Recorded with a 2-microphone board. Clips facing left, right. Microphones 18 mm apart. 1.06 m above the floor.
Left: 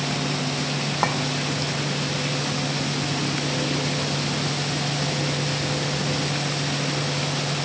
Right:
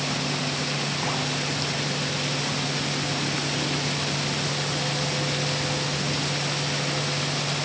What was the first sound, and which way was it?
A clink, 50° left (ahead or behind).